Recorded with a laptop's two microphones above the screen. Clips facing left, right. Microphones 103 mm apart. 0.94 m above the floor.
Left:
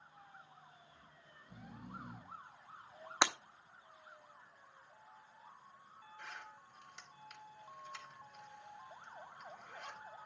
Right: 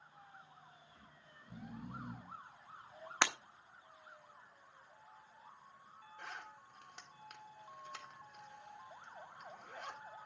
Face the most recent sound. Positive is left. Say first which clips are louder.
# right 2 dB
turn(degrees=-55)  # may be behind; listen again after turning